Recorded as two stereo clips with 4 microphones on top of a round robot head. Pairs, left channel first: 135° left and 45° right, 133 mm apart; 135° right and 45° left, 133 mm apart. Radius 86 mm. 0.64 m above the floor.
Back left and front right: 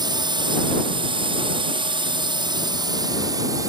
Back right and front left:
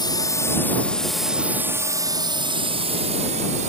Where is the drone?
90° right; by 3.7 s 20° left.